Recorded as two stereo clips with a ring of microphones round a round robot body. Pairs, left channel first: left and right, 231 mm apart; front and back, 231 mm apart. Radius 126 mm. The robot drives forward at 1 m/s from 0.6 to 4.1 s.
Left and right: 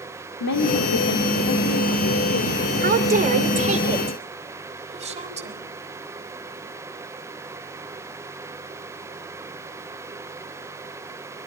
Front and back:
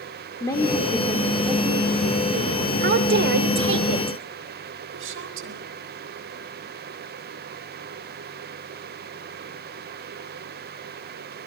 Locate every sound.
0.4 s a woman speaking: 75° left, 1.8 m; by 2.6 s 130° left, 2.5 m
2.8 s a woman speaking: 135° right, 3 m; by 5.5 s 150° right, 4 m